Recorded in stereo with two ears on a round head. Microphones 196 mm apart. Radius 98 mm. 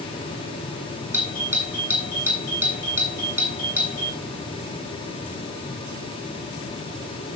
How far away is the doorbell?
About 8.5 m.